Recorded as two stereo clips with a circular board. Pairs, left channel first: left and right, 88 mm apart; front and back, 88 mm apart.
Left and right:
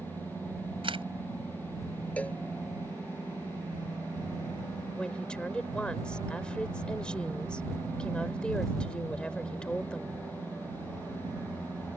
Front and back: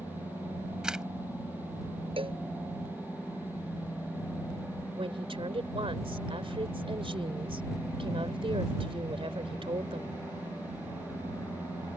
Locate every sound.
0.8 s a camera shutter: 100° right
2.2 s a cowbell: 165° left
5.0 s a woman speaking: 170° left